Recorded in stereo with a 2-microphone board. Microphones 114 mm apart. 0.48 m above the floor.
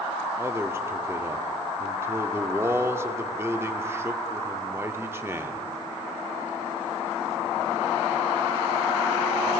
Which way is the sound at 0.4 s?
20° right (ahead or behind).